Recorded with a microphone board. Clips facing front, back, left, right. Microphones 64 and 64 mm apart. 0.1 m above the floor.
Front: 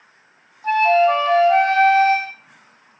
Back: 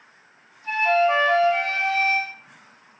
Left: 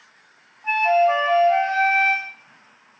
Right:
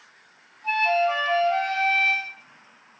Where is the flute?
20° left, 0.7 m.